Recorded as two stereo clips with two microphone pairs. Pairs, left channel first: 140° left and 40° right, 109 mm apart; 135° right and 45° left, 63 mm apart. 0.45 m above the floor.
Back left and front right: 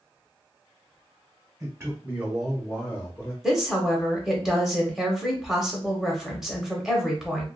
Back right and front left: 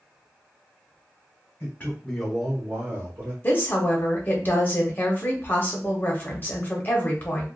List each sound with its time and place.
1.6 s a man speaking: 95° right, 1.1 m; by 3.3 s 80° left, 1.2 m
3.4 s a woman speaking: 125° right, 0.8 m